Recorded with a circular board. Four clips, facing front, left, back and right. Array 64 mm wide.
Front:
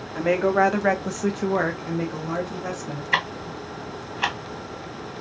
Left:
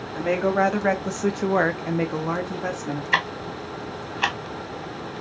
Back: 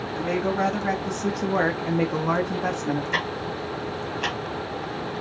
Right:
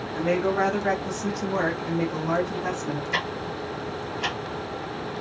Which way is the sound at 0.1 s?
15° left.